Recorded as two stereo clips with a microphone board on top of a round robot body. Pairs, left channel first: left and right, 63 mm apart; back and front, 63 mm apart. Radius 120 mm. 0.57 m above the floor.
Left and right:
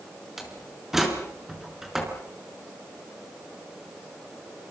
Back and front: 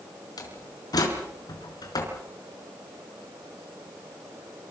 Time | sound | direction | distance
0.4 | a door slam | 175° right | 5 m